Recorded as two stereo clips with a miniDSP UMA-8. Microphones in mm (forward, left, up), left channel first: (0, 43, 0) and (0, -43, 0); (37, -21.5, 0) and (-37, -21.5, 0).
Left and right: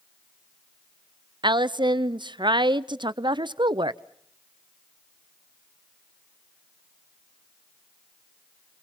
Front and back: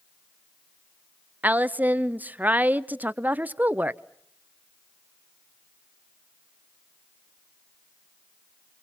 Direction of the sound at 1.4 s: 115° right.